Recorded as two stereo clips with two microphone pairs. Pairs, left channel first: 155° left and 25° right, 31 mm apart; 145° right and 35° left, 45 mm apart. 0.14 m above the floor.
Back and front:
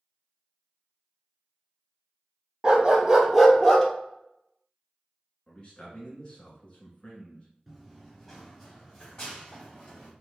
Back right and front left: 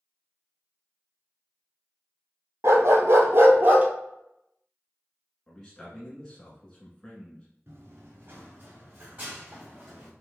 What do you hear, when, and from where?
2.6 s a dog barking: 35° left, 0.9 m; by 3.9 s 85° left, 0.9 m
5.5 s a man speaking: 145° left, 1.2 m
7.7 s running footsteps: 70° left, 2.0 m; by 10.1 s 100° left, 3 m